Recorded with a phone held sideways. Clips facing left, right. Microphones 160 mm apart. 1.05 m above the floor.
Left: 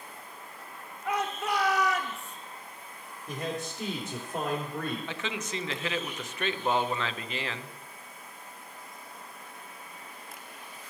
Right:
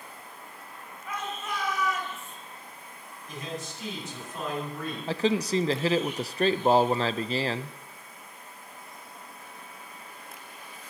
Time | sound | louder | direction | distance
1.1 | a shout | left 5 dB | 75° left (ahead or behind) | 1.5 m
3.3 | a man speaking | left 3 dB | 60° left (ahead or behind) | 3.5 m
5.1 | a man speaking | right 10 dB | 35° right (ahead or behind) | 0.5 m